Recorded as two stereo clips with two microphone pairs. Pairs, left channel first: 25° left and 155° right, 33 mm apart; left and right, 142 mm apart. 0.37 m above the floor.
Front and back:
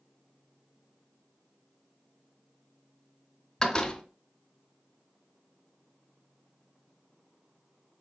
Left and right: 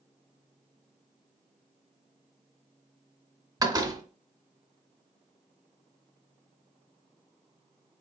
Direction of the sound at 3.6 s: 40° right.